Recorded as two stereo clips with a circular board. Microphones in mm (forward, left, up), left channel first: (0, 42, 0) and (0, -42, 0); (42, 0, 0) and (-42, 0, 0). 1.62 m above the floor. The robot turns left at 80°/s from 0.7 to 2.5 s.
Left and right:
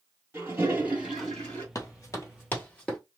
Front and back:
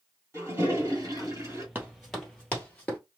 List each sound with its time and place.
0.3 s a toilet flushing: 140° right, 1.8 m; by 1.6 s 145° left, 1.8 m
1.8 s running footsteps: 120° left, 2 m; by 3.0 s 35° left, 1.7 m